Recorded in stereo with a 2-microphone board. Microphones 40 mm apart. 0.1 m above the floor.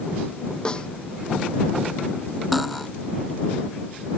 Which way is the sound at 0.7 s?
20° left (ahead or behind).